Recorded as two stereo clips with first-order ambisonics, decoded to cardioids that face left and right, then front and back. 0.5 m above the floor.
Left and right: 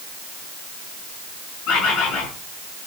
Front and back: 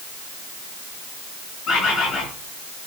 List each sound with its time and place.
1.7 s a bird: 55° left, 3.5 m